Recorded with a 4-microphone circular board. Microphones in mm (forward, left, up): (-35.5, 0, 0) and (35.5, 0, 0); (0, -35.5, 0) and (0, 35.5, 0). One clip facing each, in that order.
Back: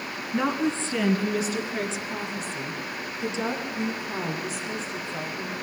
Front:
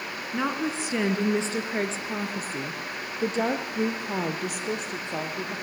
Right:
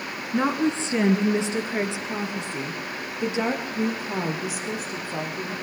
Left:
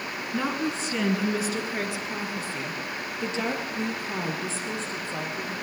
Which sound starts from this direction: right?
A woman speaking, at 0.3 s.